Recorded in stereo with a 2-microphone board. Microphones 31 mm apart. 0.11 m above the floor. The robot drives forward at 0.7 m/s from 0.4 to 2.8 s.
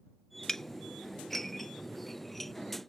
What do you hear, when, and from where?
0.5 s dishes clattering: 10° left (ahead or behind); by 2.5 s 5° left (ahead or behind)